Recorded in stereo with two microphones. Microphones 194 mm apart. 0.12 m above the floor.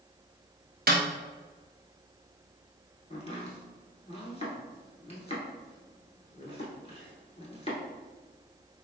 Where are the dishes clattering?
I don't hear dishes clattering.